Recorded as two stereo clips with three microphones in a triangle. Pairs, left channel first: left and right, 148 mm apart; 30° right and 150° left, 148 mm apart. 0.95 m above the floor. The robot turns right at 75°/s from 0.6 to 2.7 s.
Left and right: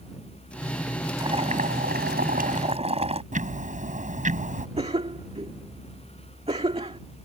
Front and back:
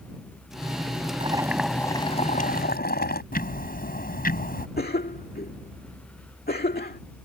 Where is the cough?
40° right.